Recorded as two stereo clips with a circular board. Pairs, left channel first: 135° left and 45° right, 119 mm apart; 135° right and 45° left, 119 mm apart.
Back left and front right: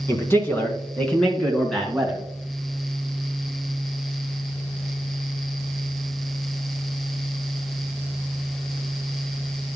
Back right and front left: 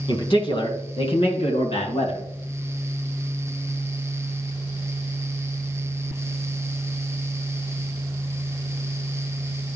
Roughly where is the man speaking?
Behind.